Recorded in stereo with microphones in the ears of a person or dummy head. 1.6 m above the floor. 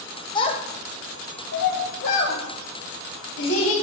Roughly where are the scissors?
No scissors in this recording.